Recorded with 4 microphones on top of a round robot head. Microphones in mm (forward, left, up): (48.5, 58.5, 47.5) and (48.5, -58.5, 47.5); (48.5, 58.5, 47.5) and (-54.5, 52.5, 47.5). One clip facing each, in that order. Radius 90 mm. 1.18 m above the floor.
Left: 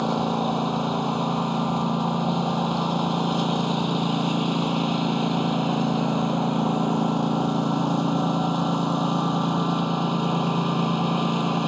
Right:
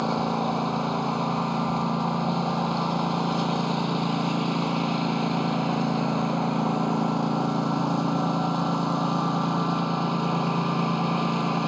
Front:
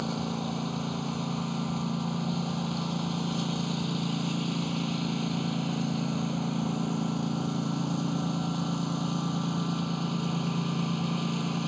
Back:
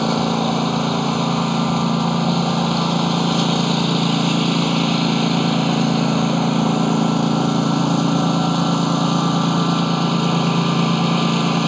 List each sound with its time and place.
0.0 s a lawn mower: 170° left